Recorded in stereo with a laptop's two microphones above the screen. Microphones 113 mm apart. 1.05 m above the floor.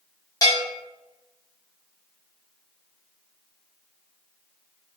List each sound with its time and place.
0.4 s a bell: 35° left (ahead or behind), 1.1 m